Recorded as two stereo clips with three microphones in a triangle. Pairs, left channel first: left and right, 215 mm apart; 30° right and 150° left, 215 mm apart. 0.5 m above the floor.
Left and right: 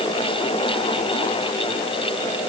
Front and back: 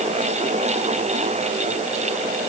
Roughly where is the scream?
No scream in this recording.